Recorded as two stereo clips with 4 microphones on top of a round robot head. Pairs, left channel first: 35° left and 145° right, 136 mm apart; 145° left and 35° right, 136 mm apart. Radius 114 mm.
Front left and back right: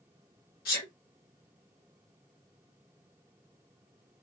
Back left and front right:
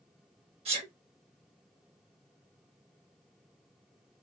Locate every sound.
0.7 s a sneeze: 15° left, 1.6 m